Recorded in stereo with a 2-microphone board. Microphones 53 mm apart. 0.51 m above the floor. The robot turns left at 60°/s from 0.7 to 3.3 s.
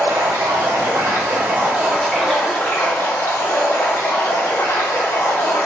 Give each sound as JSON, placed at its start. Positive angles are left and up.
{"t": 0.0, "sound": "running water", "azimuth_deg": -100, "distance_m": 1.2}